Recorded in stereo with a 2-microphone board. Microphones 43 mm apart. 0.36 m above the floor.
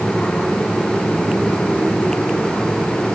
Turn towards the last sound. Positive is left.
No sound to turn to.